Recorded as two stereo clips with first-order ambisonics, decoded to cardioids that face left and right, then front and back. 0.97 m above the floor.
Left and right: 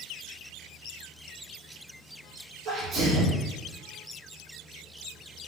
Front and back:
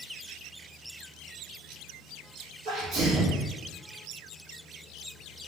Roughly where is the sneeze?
Behind right.